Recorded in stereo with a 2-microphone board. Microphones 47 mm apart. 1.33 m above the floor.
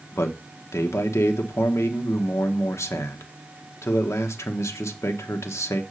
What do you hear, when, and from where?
0.1 s a man speaking: 85° left, 1.1 m